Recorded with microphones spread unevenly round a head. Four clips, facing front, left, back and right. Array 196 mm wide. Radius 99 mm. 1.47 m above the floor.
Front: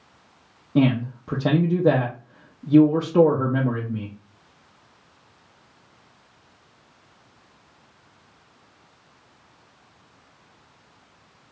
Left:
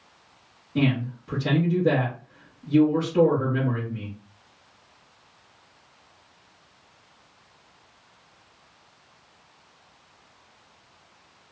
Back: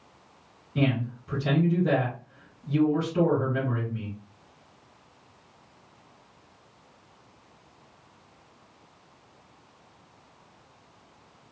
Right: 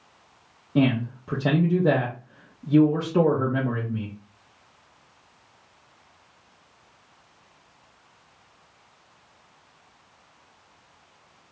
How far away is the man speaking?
About 0.6 m.